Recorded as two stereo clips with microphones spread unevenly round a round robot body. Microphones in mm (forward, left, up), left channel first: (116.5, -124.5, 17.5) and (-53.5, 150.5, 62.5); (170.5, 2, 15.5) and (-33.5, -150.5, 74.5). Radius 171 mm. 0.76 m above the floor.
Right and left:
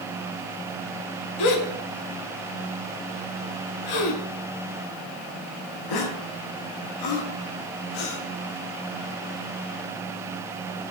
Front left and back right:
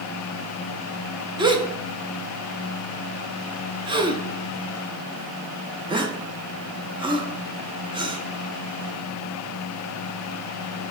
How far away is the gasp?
About 0.9 m.